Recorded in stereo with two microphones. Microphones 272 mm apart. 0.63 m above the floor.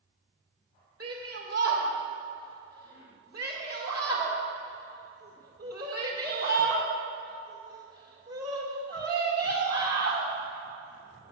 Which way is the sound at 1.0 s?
60° right (ahead or behind).